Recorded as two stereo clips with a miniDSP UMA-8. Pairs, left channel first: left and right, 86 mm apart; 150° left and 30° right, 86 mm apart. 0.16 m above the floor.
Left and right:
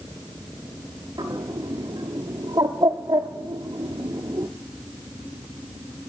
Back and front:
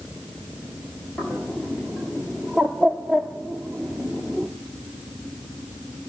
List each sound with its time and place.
1.2 s a bird: 135° right, 0.6 m